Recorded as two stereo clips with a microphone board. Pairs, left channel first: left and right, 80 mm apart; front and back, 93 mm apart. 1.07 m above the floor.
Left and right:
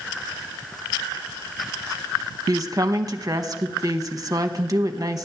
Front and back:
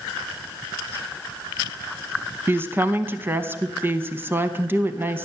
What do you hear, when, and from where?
2.5 s a woman speaking: 120° right, 0.7 m